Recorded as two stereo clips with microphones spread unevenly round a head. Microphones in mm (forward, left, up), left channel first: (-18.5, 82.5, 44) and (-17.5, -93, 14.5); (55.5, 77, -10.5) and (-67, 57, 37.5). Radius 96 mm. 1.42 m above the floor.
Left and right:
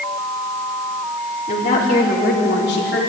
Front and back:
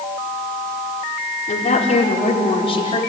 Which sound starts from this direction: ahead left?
A woman speaking, at 1.5 s.